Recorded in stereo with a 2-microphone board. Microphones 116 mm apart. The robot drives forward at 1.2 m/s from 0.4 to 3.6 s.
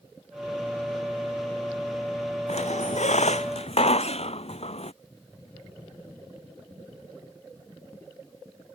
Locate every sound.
2.5 s a squeak: 70° left (ahead or behind); by 4.9 s 65° left (ahead or behind)